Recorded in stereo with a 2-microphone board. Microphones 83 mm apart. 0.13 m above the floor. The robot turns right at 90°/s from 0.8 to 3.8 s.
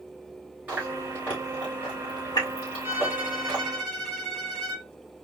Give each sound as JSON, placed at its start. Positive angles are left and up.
{"t": 0.7, "sound": "chewing", "side_deg": -15, "distance_m": 3.5}
{"t": 2.8, "sound": "a violin", "azimuth_deg": -85, "distance_m": 1.9}